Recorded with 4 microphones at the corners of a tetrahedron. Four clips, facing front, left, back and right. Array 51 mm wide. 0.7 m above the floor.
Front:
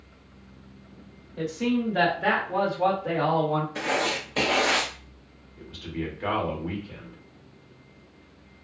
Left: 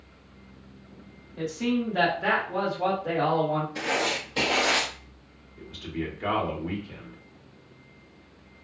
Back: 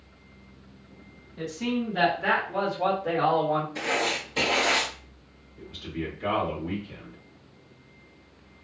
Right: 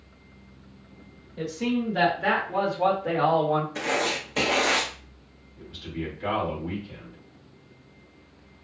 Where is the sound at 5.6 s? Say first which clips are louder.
Left 1 dB, front 1 dB; 35° left, 1.5 m.